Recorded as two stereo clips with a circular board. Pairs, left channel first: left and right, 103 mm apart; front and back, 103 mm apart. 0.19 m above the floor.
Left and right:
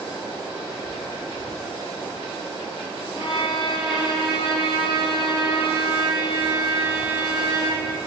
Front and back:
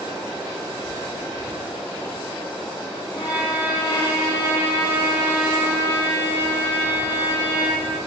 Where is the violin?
55° left, 3 m.